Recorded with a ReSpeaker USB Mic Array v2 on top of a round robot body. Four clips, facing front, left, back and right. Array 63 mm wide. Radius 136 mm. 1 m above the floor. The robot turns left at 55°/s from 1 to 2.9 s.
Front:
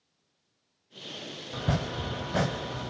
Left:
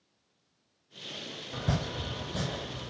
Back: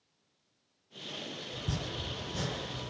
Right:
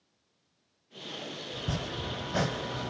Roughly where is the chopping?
Ahead left.